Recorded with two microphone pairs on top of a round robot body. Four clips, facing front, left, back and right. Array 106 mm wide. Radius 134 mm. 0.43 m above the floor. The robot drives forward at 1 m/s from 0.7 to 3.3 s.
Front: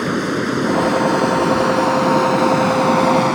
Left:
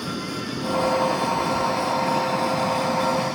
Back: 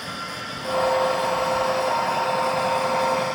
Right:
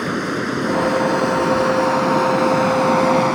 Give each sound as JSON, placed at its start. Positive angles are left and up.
{"t": 0.0, "sound": "running water", "azimuth_deg": -25}